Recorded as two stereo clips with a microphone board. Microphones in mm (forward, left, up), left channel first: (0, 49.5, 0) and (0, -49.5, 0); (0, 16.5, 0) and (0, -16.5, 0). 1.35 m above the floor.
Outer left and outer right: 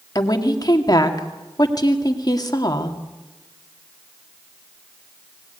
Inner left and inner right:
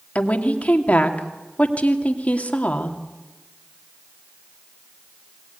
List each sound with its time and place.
0.1 s a woman speaking: 40° left (ahead or behind), 2.5 m